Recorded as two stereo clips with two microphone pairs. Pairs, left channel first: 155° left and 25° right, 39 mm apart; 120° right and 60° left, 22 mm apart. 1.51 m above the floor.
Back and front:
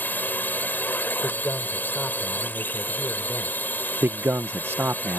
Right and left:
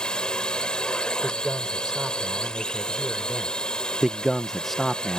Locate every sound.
0.0 s a drone: 165° right
1.2 s a man speaking: 130° left
4.0 s a man speaking: 35° right